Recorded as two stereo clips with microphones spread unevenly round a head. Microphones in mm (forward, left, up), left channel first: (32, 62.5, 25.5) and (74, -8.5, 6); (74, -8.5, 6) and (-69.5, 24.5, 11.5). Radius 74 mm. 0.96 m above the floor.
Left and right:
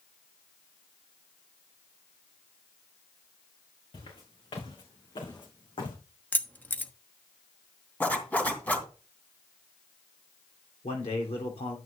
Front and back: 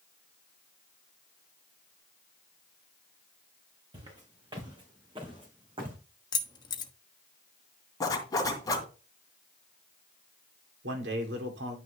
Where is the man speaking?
160° left, 2.5 m.